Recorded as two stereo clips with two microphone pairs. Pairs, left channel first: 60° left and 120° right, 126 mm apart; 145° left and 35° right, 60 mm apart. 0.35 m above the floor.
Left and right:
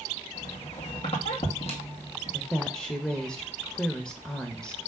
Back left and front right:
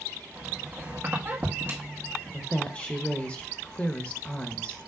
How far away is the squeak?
About 2.5 m.